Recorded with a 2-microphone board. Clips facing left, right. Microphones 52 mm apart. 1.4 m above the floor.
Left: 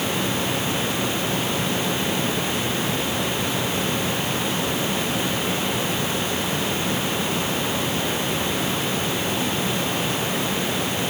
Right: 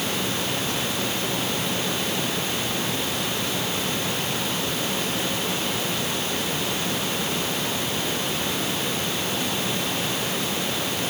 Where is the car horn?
I don't hear a car horn.